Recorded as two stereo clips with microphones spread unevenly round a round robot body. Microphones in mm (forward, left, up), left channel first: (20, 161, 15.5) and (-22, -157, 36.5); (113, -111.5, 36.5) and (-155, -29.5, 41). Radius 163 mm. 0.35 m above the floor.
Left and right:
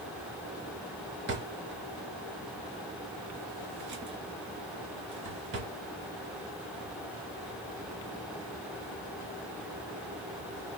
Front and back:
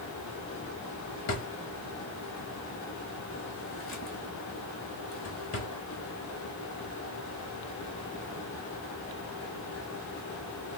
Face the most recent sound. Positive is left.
turn(degrees=-45)